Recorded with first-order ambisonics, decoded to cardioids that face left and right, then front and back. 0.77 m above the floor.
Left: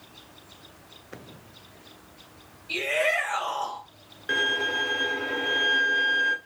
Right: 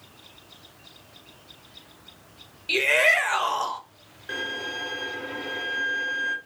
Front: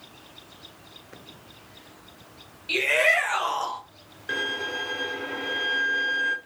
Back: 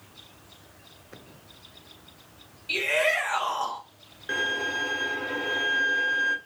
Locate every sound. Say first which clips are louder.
2.7 s a shout: right 5 dB, front 3 dB; 75° right, 0.8 m
4.3 s a violin: left 6 dB, back 1 dB; 80° left, 0.5 m